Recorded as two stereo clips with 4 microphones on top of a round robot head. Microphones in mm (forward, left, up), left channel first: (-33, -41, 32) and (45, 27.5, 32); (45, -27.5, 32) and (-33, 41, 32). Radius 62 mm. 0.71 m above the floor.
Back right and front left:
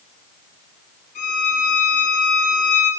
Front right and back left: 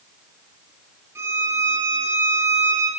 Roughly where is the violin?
Behind right.